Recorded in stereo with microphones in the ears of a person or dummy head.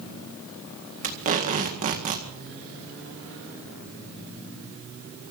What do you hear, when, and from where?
1.0 s tape being pulled: 35° right (ahead or behind), 1.9 m